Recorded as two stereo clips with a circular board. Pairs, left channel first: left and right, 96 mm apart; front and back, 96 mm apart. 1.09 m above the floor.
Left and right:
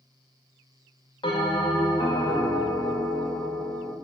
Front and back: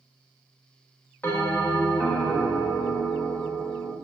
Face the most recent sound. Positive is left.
turn(degrees=65)